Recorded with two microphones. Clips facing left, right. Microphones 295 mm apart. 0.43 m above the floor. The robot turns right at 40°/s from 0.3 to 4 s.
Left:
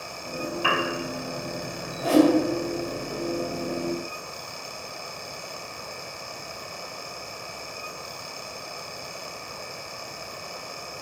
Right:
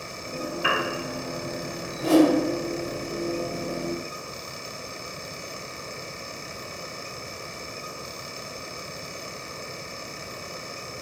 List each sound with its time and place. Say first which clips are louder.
0.6 s a piano: left 1 dB; 30° right (ahead or behind), 0.8 m; by 0.9 s 20° right (ahead or behind), 0.8 m
2.0 s a whoosh: right 1 dB; 30° right (ahead or behind), 1.9 m; by 2.3 s 40° right (ahead or behind), 1.9 m